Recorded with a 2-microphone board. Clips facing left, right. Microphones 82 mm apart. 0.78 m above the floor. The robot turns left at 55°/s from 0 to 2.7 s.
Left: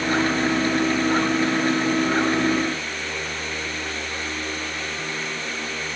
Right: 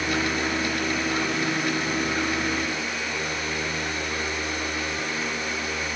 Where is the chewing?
No chewing in this recording.